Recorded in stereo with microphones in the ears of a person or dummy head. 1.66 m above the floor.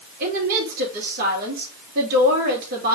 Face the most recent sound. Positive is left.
turn(degrees=-50)  # may be behind; listen again after turning